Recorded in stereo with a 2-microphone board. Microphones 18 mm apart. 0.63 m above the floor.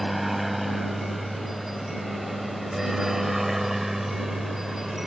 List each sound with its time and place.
0.0 s a helicopter: 10° right (ahead or behind); by 5.1 s 25° right (ahead or behind)